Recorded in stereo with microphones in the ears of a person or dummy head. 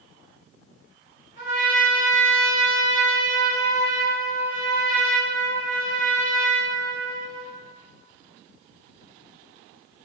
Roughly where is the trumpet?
Left.